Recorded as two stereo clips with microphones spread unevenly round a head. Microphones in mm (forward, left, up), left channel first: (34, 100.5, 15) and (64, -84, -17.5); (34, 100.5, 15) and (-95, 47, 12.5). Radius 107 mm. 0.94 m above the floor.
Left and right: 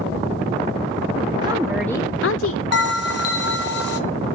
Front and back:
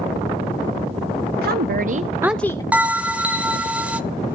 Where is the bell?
120° left, 1.2 m.